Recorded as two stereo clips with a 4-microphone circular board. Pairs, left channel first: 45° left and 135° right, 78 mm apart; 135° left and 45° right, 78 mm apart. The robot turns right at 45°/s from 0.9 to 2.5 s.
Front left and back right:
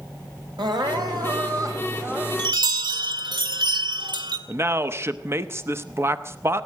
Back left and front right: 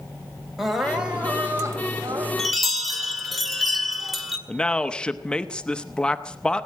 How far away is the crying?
About 2.5 m.